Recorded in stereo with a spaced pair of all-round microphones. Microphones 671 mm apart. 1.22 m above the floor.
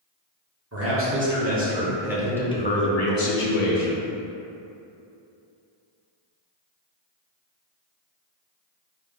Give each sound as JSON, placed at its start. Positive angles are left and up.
{"t": 0.7, "sound": "a man speaking", "side_deg": -20, "distance_m": 1.4}